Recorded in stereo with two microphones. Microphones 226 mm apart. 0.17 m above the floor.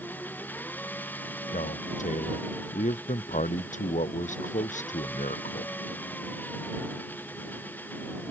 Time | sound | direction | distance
0.0 | an engine running | 10° left (ahead or behind) | ?
1.5 | a man speaking | 35° left (ahead or behind) | ?